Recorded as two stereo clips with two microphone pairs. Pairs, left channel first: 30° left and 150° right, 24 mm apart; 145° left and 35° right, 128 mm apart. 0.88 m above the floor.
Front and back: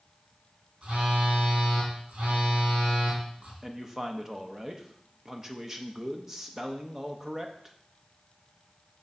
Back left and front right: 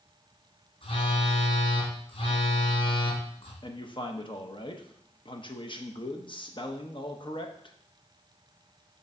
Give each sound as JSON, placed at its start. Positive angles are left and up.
{"t": 0.8, "sound": "a phone buzzing", "azimuth_deg": -175, "distance_m": 2.5}
{"t": 3.6, "sound": "a man speaking", "azimuth_deg": 150, "distance_m": 0.8}